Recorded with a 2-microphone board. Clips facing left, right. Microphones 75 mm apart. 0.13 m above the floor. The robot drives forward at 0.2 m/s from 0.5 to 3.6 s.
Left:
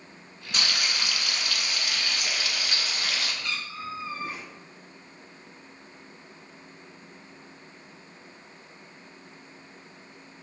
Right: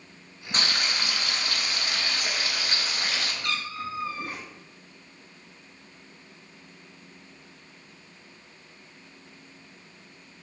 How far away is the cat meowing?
About 0.9 m.